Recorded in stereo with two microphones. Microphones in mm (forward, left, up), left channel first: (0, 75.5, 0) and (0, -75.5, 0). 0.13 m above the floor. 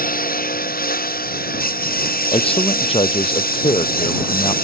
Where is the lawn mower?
75° left (ahead or behind); by 4.6 s 85° left.